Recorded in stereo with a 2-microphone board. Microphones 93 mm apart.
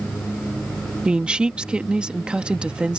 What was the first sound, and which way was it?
A woman speaking, 10° right (ahead or behind).